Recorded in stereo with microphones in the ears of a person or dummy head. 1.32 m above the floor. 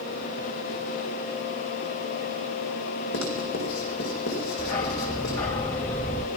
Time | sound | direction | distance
3.1 | writing | 65° left (ahead or behind) | 4.5 m
4.6 | a dog barking | 15° left (ahead or behind) | 0.7 m